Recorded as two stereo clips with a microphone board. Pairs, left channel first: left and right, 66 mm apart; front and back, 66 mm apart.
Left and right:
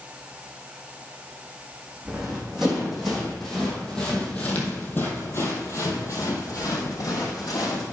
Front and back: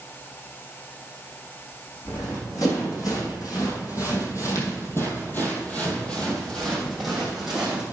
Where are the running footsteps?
10° right, 3.5 m; by 7.8 s 100° left, 3 m.